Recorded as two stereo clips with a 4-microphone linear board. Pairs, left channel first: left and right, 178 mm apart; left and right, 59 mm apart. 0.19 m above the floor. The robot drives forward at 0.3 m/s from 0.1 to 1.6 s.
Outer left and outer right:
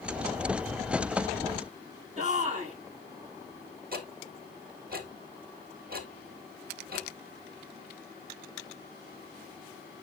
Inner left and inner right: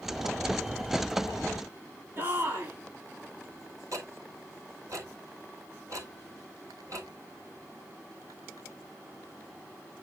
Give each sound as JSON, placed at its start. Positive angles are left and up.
{"t": 2.2, "sound": "a shout", "side_deg": -40, "distance_m": 6.5}
{"t": 3.9, "sound": "ticking", "side_deg": -55, "distance_m": 1.8}